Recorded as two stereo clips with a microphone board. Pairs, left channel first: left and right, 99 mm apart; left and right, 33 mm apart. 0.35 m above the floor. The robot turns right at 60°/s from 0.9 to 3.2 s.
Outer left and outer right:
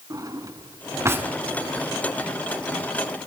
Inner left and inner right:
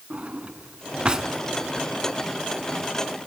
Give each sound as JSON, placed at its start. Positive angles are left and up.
{"t": 0.1, "sound": "a drawer", "side_deg": -40, "distance_m": 0.7}